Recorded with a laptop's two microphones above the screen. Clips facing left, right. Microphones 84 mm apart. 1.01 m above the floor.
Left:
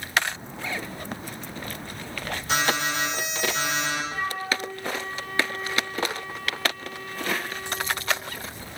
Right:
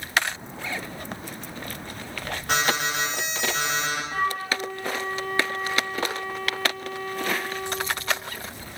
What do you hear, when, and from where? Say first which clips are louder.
2.5 s an alarm: even; 65° right (ahead or behind), 3.5 m
4.1 s a flute: right 2 dB; 60° right (ahead or behind), 2 m